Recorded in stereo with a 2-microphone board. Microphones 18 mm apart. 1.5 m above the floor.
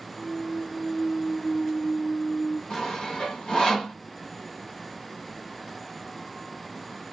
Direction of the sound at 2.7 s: 70° left (ahead or behind).